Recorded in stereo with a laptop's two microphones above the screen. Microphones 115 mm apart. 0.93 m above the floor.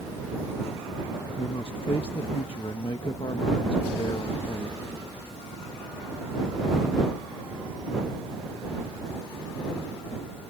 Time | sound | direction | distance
1.4 | a man speaking | 55° left (ahead or behind) | ?